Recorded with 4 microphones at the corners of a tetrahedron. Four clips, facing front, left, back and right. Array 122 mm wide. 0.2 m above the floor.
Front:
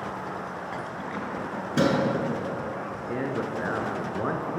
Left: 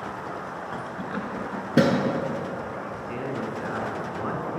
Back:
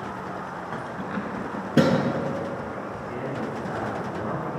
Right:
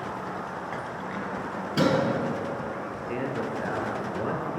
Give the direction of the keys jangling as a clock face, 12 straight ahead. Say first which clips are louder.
Left 1 dB, back 2 dB; 7 o'clock.